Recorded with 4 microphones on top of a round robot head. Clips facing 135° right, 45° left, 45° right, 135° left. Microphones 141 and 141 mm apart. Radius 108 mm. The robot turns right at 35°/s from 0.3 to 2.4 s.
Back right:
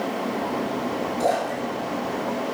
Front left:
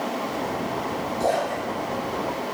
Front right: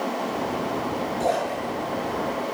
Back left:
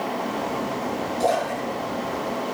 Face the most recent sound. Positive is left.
turn(degrees=-130)